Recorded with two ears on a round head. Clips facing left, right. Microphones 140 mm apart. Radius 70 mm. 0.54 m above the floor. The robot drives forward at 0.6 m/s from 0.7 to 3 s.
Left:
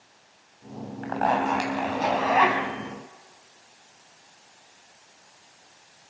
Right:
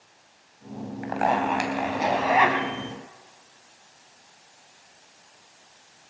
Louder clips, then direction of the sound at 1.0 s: Even; 15° right (ahead or behind).